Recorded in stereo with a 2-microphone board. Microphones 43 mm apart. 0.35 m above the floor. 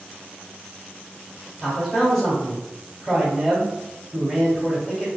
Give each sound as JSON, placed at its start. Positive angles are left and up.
{"t": 1.6, "sound": "a man speaking", "side_deg": -5, "distance_m": 1.1}